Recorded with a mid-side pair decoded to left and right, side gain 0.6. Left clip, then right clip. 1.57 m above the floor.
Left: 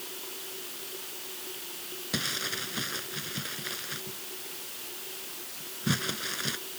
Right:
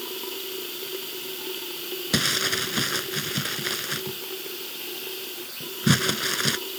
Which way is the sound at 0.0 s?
50° right.